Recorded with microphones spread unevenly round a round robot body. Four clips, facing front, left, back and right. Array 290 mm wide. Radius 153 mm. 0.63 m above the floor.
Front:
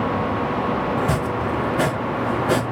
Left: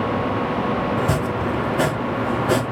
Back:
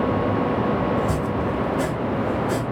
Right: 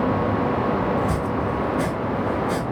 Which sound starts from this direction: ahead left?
Chopping, at 1.0 s.